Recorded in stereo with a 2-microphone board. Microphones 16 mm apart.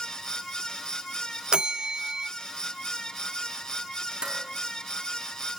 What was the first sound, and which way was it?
A bell, 55° right (ahead or behind).